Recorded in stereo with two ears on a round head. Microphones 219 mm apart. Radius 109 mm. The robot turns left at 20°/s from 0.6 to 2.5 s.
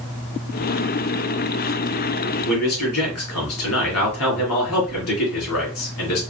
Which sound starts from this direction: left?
A man speaking, at 2.5 s.